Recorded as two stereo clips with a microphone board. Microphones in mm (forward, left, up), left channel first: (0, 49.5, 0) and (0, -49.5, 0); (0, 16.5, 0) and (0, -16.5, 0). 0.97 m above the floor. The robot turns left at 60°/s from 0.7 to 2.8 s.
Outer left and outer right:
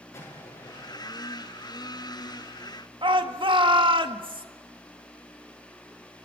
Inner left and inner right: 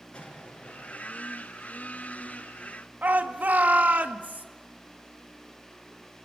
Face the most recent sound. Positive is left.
turn(degrees=-60)  # may be behind; listen again after turning